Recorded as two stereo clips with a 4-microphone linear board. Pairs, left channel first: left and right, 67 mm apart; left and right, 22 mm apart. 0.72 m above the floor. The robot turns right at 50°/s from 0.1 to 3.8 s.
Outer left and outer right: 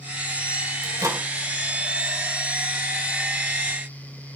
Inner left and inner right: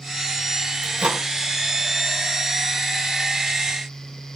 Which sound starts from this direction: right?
A microwave, at 0.8 s.